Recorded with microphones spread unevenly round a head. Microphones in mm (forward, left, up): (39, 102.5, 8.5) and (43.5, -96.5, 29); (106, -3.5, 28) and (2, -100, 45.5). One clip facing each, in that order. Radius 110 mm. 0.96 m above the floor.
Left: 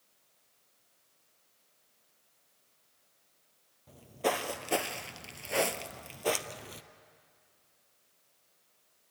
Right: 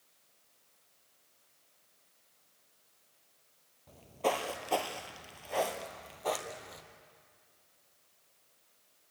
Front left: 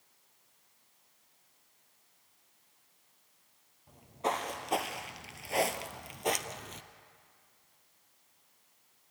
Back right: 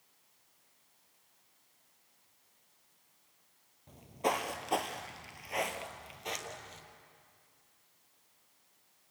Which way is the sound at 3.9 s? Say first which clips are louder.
Left 1 dB, back right 1 dB; 175° left.